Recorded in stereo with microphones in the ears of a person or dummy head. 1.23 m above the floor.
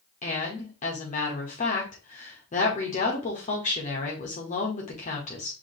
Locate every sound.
0.2 s a woman speaking: 35° left (ahead or behind), 1.6 m